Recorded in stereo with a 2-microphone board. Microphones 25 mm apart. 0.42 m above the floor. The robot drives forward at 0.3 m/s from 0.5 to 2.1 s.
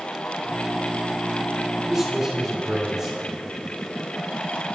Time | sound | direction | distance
1.9 | a man speaking | centre (ahead or behind) | 2.5 m